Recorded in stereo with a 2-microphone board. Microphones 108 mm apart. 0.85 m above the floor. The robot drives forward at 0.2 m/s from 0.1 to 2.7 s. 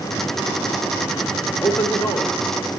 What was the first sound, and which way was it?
A man speaking, 10° left (ahead or behind).